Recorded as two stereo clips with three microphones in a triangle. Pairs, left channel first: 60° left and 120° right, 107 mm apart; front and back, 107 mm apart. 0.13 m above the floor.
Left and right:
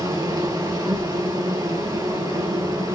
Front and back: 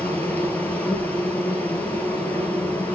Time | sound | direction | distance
0.0 | an insect | 75° right | 0.9 m